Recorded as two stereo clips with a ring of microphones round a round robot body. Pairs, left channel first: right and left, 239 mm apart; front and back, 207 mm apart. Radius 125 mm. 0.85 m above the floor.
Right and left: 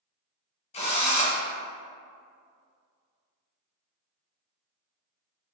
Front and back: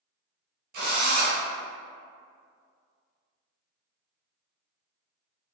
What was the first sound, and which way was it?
A drill, 150° right.